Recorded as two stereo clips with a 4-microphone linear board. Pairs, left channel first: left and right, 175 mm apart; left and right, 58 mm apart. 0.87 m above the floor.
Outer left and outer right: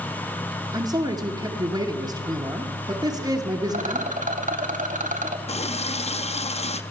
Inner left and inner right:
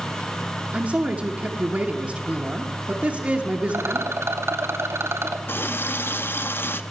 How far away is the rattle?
About 1.1 m.